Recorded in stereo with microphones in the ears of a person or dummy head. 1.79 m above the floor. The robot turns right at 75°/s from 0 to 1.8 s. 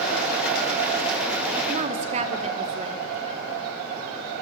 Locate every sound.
1.7 s a woman speaking: 45° right (ahead or behind), 1.0 m; by 3.0 s 35° right (ahead or behind), 1.0 m